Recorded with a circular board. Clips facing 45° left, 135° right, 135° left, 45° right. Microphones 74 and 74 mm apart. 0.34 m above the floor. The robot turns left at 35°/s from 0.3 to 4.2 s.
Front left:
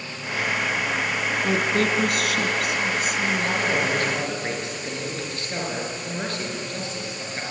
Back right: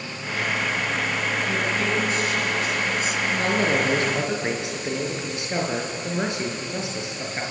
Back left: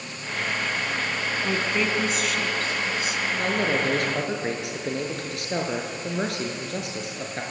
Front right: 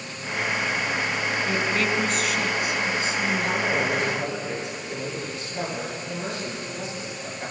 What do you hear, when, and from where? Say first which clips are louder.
1.4 s a woman speaking: front left 2 dB, back left 1 dB; 75° left, 3 m; by 3.6 s 5° right, 3 m
3.4 s a man speaking: back right 2 dB, even; straight behind, 6 m; by 7.4 s 150° left, 6 m